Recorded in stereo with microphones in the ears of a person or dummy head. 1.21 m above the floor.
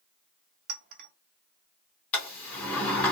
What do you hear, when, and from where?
0.7 s a clink: 65° right (ahead or behind), 0.7 m
2.1 s a sliding door: 5° left (ahead or behind), 1.0 m